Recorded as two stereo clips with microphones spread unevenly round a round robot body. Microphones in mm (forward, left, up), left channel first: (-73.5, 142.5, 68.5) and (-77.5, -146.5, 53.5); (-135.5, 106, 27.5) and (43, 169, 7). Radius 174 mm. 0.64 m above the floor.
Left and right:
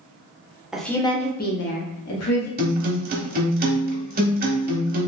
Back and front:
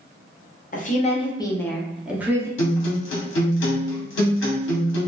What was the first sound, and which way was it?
A woman speaking, 175° right.